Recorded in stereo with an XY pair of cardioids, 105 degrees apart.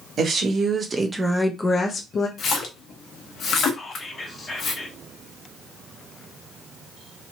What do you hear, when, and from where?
0.2 s a woman speaking: 55° right, 1.4 m; by 2.3 s 65° left, 0.9 m
2.4 s a splash: 60° left, 1.0 m
3.7 s whispering: 30° left, 1.4 m